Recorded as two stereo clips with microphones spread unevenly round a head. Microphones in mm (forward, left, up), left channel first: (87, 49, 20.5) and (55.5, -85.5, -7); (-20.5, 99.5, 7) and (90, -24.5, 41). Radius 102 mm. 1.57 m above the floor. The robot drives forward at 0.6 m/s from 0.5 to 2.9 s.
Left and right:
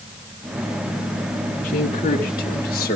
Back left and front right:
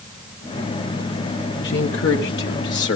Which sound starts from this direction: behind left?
A man speaking, at 1.6 s.